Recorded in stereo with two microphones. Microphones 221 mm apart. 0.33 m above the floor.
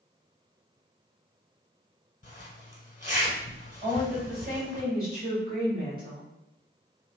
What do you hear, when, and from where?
2.2 s a zipper: 35° left (ahead or behind), 1.1 m
3.8 s a woman speaking: 40° right (ahead or behind), 1.8 m